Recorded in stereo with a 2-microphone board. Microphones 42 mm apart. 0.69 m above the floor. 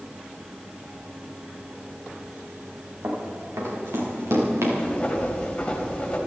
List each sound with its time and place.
3.0 s running footsteps: 75° right (ahead or behind), 5.5 m; by 4.7 s 85° right, 6 m
4.8 s writing: 30° left (ahead or behind), 3 m